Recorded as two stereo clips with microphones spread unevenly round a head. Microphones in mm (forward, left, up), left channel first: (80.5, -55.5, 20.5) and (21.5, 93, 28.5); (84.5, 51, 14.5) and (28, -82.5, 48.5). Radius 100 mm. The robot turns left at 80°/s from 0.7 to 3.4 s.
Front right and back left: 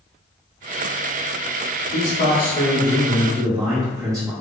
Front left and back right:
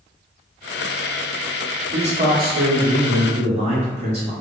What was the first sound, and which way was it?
A man speaking, 55° right.